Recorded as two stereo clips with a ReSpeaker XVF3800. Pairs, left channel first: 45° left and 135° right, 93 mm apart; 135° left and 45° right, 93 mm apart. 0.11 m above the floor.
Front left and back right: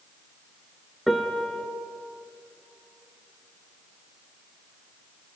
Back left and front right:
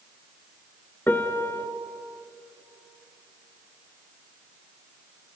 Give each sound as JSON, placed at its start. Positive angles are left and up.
{"t": 1.1, "sound": "a piano", "azimuth_deg": 135, "distance_m": 0.7}